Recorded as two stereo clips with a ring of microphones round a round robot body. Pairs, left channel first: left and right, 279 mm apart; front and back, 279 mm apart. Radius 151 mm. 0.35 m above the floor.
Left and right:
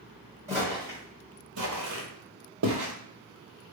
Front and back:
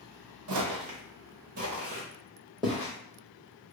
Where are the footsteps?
170° right, 1.0 m; by 2.9 s 80° right, 0.9 m.